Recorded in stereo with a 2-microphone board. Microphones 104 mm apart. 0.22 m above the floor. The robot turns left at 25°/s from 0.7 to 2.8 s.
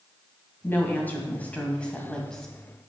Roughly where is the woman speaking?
Left.